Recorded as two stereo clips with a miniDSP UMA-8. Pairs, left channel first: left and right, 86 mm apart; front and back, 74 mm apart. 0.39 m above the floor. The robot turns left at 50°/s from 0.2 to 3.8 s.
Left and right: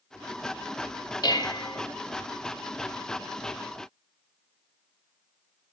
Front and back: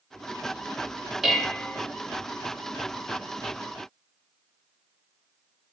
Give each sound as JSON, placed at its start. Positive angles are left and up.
{"t": 1.2, "sound": "dishes clattering", "azimuth_deg": 95, "distance_m": 0.7}